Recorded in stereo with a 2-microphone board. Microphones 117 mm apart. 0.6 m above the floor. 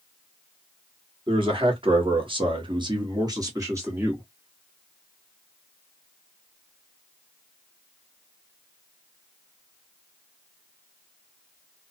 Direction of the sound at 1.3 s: 45° right (ahead or behind).